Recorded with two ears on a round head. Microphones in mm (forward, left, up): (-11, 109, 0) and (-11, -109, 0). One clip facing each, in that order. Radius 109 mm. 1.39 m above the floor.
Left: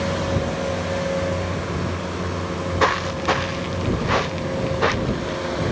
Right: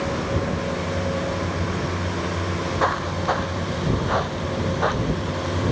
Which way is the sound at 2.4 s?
40° left (ahead or behind).